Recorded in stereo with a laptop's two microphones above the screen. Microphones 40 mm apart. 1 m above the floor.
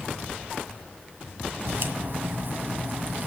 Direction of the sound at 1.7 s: 55° right (ahead or behind).